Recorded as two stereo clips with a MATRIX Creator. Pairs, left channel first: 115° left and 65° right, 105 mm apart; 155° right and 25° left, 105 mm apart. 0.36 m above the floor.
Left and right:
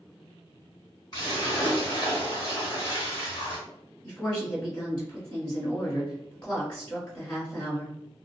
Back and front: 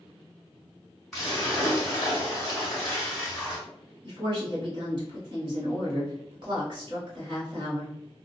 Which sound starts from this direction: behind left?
A splash, at 1.1 s.